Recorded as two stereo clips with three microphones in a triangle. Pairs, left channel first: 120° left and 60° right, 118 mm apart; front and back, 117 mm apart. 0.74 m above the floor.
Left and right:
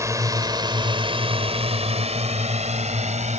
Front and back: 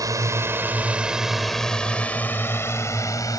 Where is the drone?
120° right; by 3.4 s 60° right.